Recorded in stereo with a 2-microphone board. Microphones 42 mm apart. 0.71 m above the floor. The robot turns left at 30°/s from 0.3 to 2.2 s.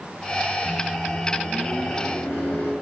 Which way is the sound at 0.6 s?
140° left.